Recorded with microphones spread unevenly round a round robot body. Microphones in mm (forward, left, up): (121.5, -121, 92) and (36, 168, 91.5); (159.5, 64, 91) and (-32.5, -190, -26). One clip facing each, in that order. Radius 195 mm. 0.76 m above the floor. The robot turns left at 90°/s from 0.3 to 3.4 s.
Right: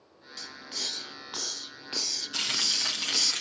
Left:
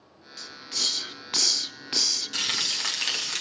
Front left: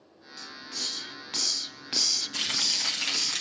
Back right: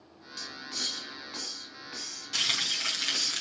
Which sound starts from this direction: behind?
Frying, at 2.3 s.